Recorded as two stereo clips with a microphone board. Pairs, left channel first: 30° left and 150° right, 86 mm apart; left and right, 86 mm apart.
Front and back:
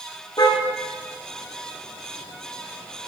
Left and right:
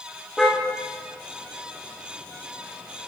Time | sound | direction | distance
0.4 | a car horn | 5° left | 6 m